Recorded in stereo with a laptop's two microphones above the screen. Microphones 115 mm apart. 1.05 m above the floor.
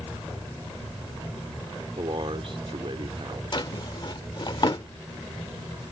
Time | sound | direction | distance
2.0 | a man speaking | 55° right (ahead or behind) | ?
3.5 | a drawer | 45° left (ahead or behind) | ?